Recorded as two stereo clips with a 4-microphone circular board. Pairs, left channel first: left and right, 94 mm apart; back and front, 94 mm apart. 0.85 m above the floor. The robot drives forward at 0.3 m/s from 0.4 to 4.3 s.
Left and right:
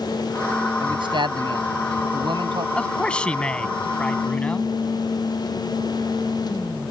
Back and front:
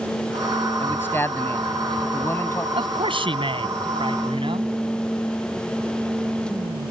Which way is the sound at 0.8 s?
115° right.